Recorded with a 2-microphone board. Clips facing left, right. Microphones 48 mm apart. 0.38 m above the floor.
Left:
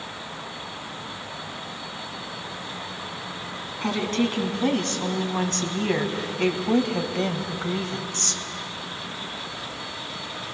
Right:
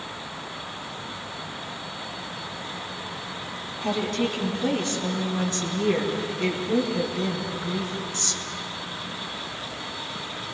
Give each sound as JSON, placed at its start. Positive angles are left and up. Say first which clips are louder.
{"t": 3.8, "sound": "a woman speaking", "louder": "left 1 dB", "side_deg": 55, "distance_m": 4.0}